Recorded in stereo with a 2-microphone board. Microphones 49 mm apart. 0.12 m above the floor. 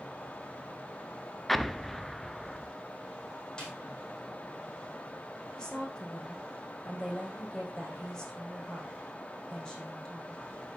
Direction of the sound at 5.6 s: 15° left (ahead or behind).